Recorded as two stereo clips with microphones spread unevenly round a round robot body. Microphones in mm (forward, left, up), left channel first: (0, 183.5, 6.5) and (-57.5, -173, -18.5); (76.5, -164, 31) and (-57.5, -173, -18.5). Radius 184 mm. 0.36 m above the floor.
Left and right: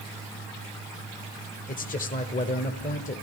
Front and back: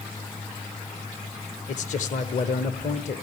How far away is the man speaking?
About 0.9 m.